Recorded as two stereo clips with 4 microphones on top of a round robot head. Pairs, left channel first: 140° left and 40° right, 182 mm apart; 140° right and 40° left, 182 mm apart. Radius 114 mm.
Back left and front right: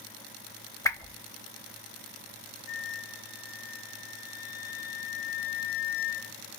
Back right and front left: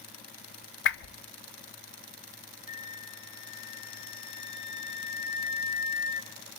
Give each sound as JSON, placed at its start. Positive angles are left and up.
{"t": 0.8, "sound": "a whoosh", "azimuth_deg": -145, "distance_m": 0.7}
{"t": 2.7, "sound": "a flute", "azimuth_deg": 170, "distance_m": 3.0}